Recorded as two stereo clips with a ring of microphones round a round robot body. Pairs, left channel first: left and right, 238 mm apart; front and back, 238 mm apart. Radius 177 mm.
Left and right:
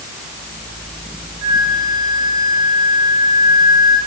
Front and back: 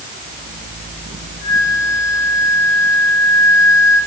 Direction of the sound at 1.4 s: 95° right.